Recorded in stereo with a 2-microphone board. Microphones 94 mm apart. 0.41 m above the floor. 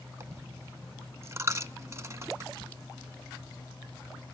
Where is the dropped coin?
30° right (ahead or behind), 0.5 m.